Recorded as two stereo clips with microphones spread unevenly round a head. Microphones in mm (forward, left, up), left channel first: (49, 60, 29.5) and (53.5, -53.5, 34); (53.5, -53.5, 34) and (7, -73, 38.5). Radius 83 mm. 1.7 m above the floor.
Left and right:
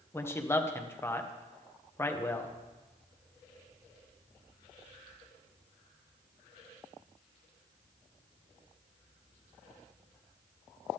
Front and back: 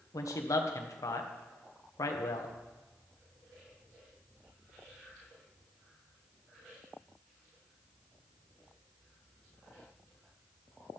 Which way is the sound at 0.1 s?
25° left.